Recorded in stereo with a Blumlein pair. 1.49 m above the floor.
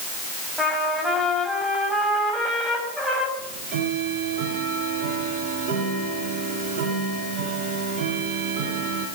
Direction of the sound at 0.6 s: Straight ahead.